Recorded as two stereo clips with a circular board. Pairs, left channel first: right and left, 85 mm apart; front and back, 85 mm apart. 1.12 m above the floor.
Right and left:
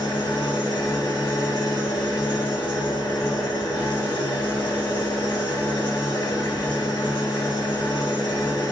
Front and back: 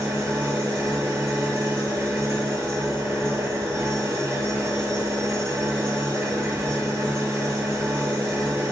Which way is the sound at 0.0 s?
120° right.